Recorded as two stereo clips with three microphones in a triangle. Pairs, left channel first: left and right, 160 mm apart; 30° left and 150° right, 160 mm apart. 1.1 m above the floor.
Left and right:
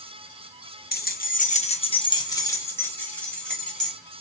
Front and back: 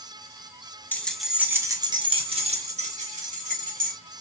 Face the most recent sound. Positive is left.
turn(degrees=180)